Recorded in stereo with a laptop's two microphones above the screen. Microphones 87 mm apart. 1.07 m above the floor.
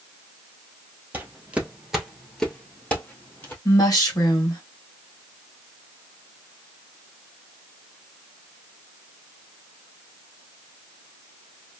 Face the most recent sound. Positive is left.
turn(degrees=40)  # may be behind; listen again after turning